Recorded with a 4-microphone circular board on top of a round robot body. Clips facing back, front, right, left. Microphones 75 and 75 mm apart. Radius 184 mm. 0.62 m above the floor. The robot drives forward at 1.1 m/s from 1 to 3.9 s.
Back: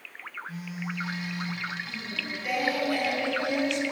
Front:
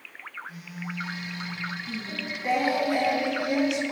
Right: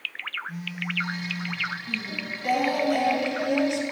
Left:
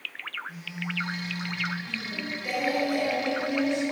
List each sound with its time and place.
0.5 s a phone buzzing: 125° right, 5.5 m; by 1.7 s 130° right, 6 m
1.9 s singing: 45° right, 3.5 m; by 3.8 s 90° right, 2.5 m